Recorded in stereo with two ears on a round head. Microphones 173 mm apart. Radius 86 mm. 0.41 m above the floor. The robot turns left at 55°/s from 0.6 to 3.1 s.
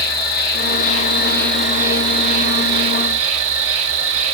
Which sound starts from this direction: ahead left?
An insect, at 0.0 s.